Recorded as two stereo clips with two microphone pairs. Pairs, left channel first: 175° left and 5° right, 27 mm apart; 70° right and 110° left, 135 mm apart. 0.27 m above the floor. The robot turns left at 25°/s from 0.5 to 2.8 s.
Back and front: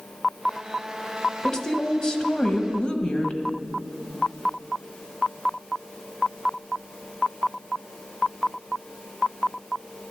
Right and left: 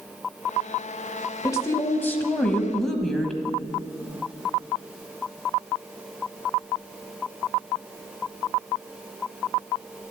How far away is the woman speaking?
About 1.2 m.